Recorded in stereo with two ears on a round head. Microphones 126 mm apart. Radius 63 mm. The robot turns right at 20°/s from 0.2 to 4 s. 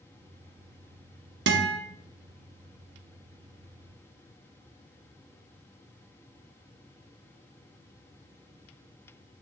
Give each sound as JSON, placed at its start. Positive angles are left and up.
{"t": 1.5, "sound": "a guitar", "side_deg": -85, "distance_m": 1.2}